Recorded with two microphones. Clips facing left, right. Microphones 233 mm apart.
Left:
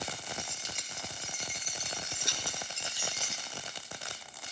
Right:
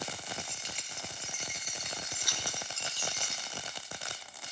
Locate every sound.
0.3 s keys jangling: 50° left (ahead or behind), 3.5 m; by 3.4 s centre (ahead or behind), 2.0 m